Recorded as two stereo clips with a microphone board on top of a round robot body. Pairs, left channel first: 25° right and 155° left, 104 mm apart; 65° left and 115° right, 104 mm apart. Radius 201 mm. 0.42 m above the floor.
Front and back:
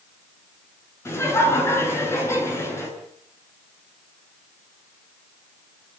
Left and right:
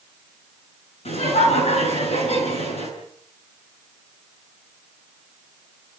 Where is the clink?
I don't hear a clink.